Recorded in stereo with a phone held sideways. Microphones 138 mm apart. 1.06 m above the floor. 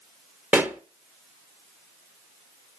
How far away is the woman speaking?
I don't hear a woman speaking.